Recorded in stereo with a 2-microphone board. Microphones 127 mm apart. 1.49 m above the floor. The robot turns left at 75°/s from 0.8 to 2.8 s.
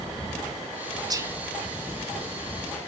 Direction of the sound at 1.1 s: 30° right (ahead or behind).